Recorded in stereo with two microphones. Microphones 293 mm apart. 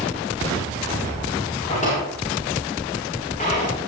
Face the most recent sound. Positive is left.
turn(degrees=25)  # may be behind; listen again after turning